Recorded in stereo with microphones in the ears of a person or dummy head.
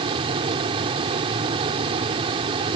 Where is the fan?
30° right (ahead or behind).